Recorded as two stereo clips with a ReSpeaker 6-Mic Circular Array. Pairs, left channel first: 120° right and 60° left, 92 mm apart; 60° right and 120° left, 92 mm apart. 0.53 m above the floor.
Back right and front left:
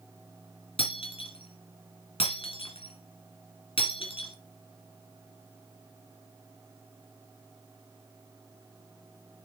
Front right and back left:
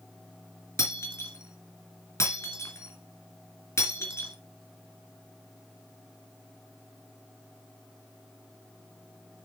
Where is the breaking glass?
120° right, 3 m.